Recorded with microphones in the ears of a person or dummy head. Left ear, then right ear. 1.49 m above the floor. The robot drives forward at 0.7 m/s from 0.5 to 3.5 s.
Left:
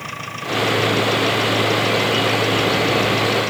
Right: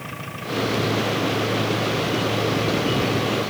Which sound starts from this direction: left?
An engine running, at 0.0 s.